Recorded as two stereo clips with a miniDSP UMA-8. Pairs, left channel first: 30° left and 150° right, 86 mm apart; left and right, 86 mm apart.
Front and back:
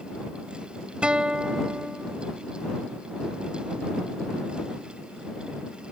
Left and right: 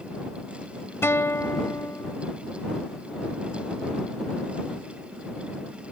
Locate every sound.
1.0 s a guitar: 135° left